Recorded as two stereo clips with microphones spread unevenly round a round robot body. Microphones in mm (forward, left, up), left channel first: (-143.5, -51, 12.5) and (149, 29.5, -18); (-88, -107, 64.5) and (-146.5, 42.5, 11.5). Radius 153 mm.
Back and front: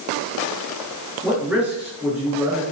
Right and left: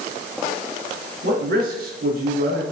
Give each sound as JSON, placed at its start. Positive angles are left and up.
{"t": 1.2, "sound": "a man speaking", "azimuth_deg": 100, "distance_m": 4.5}